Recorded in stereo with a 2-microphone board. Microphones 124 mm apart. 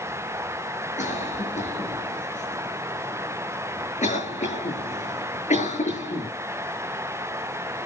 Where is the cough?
80° left, 7.5 m.